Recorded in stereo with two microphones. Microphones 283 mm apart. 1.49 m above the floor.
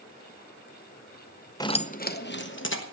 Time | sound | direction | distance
1.6 | keys jangling | 15° left (ahead or behind) | 0.5 m